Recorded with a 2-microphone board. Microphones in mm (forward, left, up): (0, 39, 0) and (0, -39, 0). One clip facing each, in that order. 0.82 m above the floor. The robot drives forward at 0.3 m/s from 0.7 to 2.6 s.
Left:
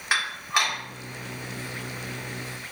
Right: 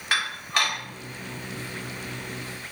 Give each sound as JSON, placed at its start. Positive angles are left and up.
{"t": 0.1, "sound": "dishes clattering", "side_deg": 15, "distance_m": 1.3}